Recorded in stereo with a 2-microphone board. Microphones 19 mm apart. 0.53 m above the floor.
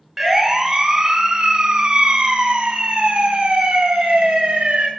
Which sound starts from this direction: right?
A siren, at 0.2 s.